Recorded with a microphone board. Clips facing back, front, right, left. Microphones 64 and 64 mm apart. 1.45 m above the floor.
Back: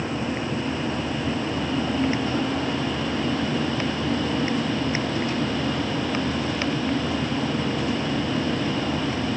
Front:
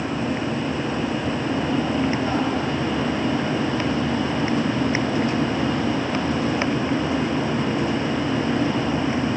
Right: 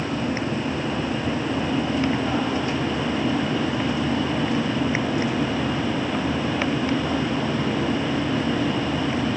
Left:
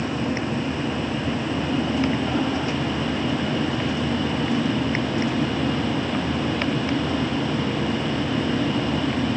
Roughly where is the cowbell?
No cowbell in this recording.